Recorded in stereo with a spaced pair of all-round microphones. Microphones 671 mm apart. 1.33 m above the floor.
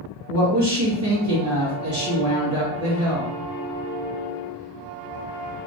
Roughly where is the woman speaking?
Right.